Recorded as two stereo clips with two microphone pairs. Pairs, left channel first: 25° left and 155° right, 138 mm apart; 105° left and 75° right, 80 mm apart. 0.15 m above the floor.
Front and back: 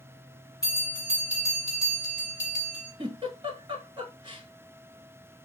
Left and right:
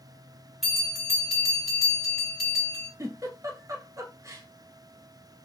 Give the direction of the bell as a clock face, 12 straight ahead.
11 o'clock.